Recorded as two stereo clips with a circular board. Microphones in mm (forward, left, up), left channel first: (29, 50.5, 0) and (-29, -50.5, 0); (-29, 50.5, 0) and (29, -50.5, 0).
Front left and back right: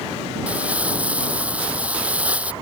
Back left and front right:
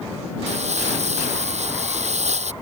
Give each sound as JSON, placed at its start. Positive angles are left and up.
{"t": 0.5, "sound": "crumpling", "azimuth_deg": -40}